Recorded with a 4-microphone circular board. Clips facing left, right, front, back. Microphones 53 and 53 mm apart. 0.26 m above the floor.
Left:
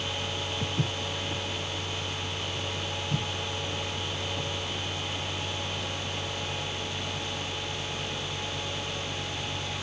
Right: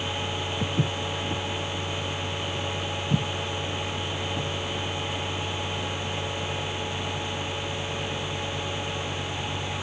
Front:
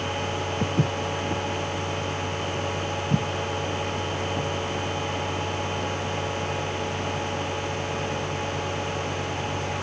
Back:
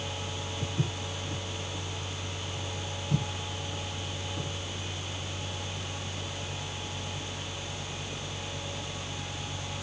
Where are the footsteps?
20° right, 1.0 m; by 4.5 s 45° right, 3.5 m.